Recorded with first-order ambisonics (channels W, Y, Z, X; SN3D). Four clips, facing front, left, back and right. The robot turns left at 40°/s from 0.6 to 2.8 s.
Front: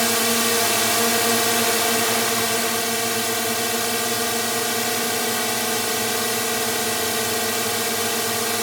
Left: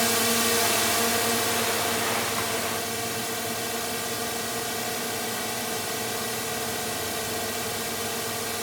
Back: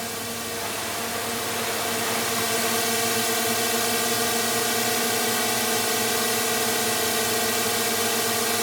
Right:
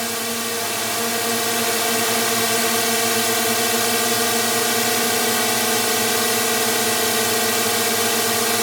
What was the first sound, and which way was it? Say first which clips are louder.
A drone: left 1 dB, front 11 dB; 5° left.